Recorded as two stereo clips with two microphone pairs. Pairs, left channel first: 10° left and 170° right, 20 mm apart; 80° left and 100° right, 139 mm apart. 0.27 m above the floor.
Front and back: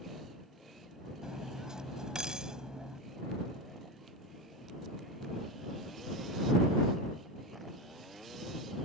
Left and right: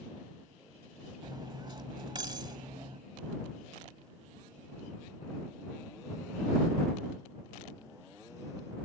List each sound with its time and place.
1.2 s cutlery clinking: 140° right